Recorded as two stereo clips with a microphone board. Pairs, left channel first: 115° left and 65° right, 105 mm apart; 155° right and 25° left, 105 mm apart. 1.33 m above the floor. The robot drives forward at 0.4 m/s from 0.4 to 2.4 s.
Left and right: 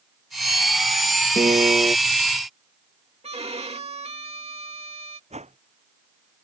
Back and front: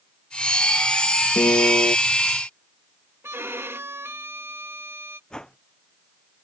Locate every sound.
1.4 s a piano: 105° right; by 1.9 s 120° right
3.2 s a violin: 45° right
5.3 s a whoosh: 75° right